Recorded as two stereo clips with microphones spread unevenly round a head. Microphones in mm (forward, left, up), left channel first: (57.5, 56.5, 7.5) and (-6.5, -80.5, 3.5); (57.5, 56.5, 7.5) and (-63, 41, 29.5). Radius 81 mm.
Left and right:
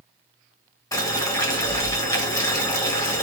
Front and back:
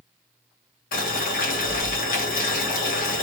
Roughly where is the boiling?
Ahead.